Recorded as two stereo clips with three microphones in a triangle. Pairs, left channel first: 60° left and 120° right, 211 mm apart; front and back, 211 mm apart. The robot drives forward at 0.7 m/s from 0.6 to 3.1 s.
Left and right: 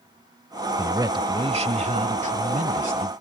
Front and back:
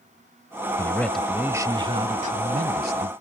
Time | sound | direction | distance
0.8 | a man speaking | 60° right | ?